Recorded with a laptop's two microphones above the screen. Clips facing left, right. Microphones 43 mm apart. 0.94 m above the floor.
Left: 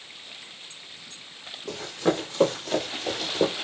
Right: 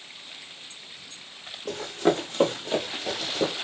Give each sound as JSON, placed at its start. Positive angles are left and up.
{"t": 1.7, "sound": "running footsteps", "side_deg": -55, "distance_m": 1.6}